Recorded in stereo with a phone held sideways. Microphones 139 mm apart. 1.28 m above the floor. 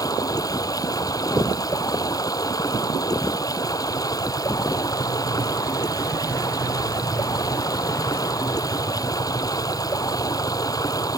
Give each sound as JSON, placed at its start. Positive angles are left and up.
{"t": 0.0, "sound": "running water", "side_deg": 25}